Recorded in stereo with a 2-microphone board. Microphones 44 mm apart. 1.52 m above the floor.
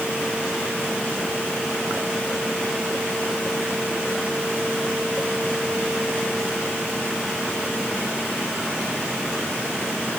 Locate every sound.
Only background noise.